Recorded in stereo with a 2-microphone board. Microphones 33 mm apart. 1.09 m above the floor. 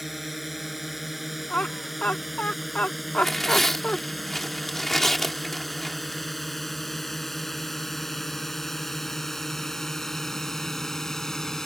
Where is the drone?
5° right (ahead or behind); by 11.7 s 15° left (ahead or behind).